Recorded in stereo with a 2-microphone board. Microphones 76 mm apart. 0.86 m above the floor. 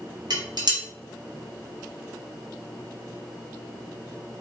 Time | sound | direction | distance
0.3 | dishes clattering | 65° right (ahead or behind) | 0.8 m